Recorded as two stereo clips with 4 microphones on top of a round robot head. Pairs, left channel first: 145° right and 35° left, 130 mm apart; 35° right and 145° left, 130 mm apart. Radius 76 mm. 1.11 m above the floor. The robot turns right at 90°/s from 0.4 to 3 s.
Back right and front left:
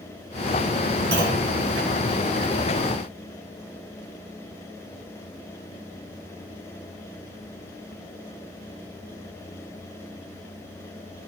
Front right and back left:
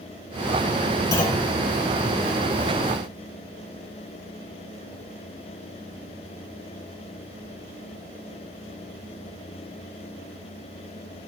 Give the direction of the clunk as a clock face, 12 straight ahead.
11 o'clock.